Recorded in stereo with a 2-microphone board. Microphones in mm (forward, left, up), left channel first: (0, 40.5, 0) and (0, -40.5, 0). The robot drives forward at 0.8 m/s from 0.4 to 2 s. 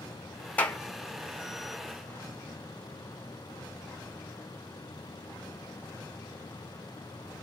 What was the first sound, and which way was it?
A clap, 20° left (ahead or behind).